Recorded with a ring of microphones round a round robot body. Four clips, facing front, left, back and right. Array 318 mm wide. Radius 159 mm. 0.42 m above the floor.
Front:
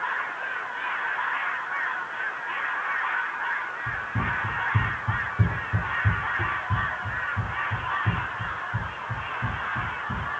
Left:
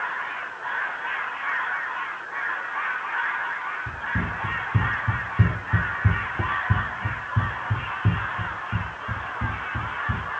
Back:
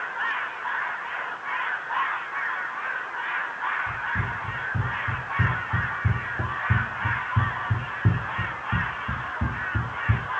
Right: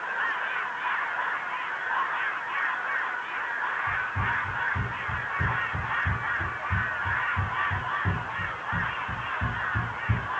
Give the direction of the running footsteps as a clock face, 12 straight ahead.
10 o'clock.